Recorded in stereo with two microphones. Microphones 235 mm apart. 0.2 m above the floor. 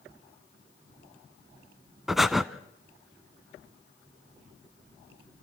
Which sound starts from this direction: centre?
Breathing, at 2.1 s.